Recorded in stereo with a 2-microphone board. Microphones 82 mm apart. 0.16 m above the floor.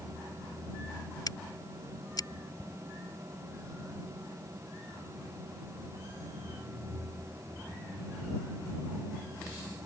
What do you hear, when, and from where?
1.3 s scissors: 55° left (ahead or behind)
2.6 s ticking: 40° right (ahead or behind)